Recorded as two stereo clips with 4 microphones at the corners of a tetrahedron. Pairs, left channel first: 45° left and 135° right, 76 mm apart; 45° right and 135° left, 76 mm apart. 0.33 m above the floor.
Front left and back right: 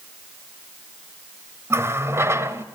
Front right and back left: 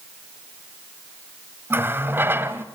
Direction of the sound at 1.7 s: 175° right.